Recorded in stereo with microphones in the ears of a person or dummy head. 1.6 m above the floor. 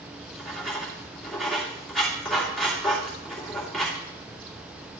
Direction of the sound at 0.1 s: Centre (ahead or behind).